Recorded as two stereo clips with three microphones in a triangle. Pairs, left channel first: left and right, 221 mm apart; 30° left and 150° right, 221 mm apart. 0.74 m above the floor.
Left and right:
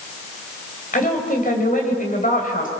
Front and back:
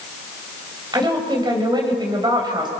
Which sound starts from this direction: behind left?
A woman speaking, at 0.9 s.